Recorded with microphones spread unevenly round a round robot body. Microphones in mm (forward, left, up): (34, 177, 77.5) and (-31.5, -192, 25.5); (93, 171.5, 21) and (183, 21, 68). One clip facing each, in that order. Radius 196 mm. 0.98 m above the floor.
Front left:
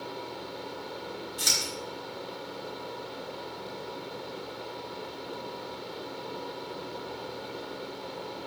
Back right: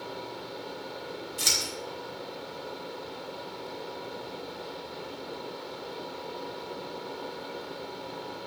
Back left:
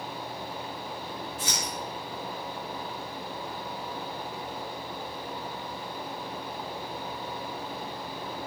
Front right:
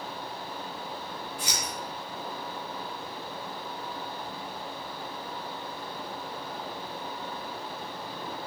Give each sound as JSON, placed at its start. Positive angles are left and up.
{"t": 1.4, "sound": "scissors", "azimuth_deg": -155, "distance_m": 2.5}